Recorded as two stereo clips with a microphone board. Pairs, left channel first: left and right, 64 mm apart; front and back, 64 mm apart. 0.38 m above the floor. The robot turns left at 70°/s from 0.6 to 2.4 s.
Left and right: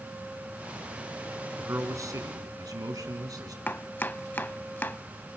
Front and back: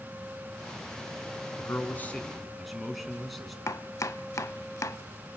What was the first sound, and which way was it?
A man speaking, 30° right.